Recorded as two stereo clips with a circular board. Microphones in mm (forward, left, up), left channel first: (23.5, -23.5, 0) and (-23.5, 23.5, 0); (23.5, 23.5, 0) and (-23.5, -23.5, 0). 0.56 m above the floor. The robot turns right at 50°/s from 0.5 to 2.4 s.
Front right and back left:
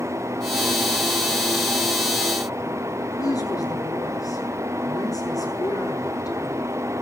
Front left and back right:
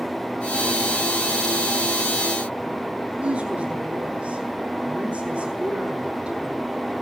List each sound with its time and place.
3.2 s a woman speaking: 65° right, 8 m